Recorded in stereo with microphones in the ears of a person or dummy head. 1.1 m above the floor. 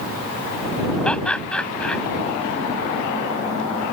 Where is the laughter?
5° left (ahead or behind).